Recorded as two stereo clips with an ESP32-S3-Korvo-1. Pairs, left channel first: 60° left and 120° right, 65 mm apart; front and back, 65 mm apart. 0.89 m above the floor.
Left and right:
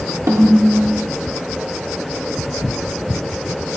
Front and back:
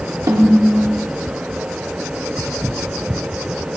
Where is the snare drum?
160° right, 2.5 m.